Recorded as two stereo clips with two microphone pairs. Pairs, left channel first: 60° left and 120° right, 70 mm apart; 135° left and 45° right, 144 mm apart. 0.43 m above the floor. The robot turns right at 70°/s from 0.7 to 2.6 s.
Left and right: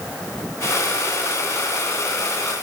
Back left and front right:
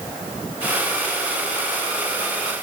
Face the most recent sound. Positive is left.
No sound to turn to.